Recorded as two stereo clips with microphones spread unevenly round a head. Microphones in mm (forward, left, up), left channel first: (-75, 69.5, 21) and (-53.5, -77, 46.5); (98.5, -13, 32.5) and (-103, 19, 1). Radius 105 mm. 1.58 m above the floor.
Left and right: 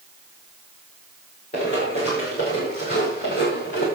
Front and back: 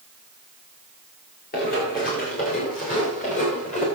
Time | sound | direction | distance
1.5 | running footsteps | 35° left | 7 m